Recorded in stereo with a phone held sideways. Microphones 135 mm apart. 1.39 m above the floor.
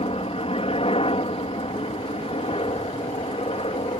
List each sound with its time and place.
0.0 s a helicopter: 45° left (ahead or behind)